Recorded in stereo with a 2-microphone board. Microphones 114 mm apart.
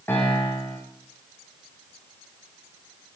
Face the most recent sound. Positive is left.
turn(degrees=20)  # may be behind; listen again after turning